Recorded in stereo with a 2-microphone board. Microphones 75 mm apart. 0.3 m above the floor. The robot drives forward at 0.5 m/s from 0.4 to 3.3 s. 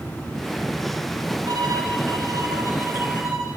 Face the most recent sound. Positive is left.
turn(degrees=-50)  # may be behind; listen again after turning